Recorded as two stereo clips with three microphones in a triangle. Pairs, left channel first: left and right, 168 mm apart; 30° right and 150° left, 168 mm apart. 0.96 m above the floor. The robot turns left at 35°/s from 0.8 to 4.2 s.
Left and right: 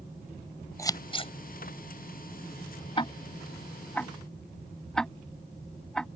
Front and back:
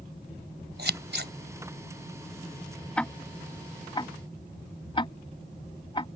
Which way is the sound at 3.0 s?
50° left.